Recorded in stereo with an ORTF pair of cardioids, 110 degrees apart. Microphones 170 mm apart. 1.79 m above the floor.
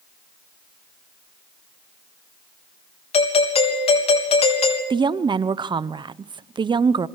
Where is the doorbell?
35° left, 4 m.